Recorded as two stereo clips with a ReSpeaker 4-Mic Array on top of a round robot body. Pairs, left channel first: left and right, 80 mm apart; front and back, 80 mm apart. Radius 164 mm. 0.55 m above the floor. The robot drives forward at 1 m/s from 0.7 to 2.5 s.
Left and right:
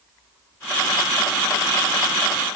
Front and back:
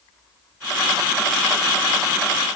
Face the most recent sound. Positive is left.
No sound to turn to.